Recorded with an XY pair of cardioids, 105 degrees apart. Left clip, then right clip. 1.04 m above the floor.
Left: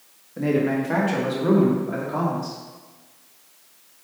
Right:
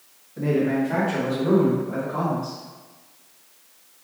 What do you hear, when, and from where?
0.4 s a man speaking: 40° left, 1.4 m; by 2.6 s 80° left, 2 m